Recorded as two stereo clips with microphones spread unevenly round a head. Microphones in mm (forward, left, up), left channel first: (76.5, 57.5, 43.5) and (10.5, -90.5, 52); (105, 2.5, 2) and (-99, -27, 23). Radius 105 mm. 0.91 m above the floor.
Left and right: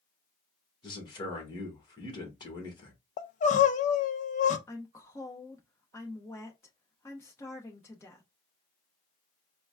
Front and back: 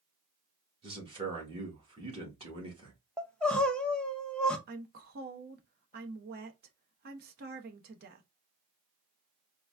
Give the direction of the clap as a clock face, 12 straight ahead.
No clap in this recording.